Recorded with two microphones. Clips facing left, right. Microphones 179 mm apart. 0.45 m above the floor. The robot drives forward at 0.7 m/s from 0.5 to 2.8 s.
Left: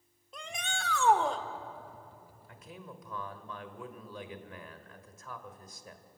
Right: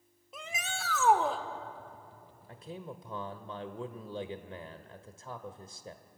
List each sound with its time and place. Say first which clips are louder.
0.3 s a shout: even; 5° right (ahead or behind), 1.1 m
2.5 s a man speaking: right 5 dB; 35° right (ahead or behind), 1.2 m; by 6.0 s 30° right (ahead or behind), 1.3 m